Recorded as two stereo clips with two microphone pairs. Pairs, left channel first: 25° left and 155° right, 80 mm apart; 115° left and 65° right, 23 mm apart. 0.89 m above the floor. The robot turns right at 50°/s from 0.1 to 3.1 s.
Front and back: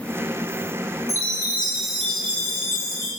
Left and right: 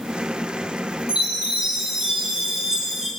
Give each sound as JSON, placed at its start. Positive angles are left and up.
{"t": 1.1, "sound": "a chime", "azimuth_deg": -105, "distance_m": 2.5}